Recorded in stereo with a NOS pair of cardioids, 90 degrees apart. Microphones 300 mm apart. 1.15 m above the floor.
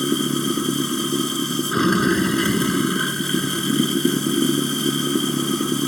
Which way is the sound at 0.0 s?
Straight ahead.